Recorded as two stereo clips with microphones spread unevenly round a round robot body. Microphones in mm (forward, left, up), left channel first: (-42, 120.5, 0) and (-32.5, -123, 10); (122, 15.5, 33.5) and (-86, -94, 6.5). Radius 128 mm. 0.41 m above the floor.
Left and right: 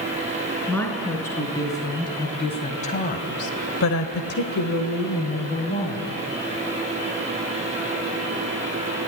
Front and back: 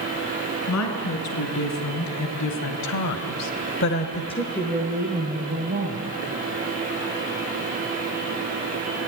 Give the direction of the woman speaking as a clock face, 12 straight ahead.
12 o'clock.